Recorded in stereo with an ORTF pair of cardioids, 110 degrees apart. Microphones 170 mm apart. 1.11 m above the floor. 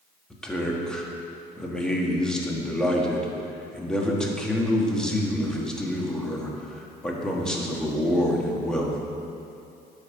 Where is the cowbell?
I don't hear a cowbell.